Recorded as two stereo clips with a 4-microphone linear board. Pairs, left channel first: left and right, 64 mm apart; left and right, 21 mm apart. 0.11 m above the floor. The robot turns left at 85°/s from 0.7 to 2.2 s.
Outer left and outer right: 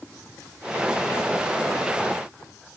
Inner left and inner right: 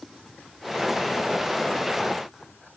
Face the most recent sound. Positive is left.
No sound to turn to.